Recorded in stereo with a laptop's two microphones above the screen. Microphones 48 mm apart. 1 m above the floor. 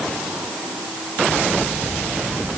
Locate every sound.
Only background noise.